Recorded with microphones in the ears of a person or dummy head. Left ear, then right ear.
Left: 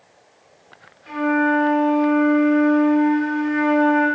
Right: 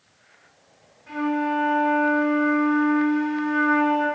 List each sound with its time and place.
1.1 s a flute: 60° left (ahead or behind), 1.2 m